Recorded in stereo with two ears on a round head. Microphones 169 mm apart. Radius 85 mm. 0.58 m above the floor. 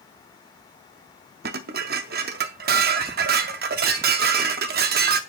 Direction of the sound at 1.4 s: 55° right (ahead or behind).